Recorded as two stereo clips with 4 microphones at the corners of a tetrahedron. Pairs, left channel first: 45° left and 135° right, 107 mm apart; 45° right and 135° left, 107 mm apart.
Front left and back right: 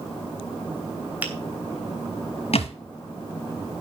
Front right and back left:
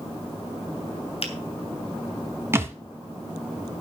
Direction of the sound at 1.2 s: 60° right.